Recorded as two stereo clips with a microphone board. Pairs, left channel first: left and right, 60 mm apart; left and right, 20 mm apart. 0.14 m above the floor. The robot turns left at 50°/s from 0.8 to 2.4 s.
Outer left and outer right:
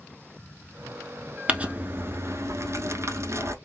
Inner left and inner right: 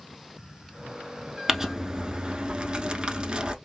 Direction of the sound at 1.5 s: 25° right.